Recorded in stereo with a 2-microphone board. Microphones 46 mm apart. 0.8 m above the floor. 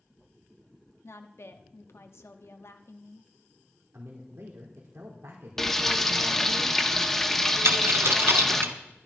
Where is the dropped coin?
60° right (ahead or behind), 1.2 m.